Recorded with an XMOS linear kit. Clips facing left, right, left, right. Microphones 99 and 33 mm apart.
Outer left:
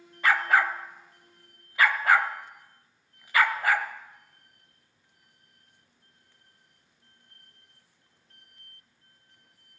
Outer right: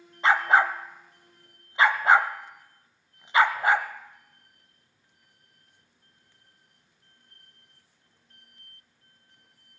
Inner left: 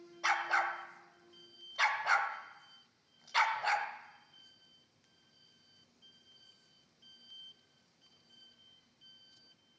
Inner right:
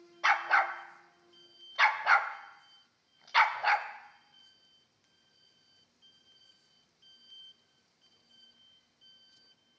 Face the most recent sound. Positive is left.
turn(degrees=-20)  # may be behind; listen again after turning